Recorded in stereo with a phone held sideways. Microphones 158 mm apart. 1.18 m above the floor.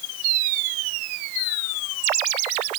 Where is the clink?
I don't hear a clink.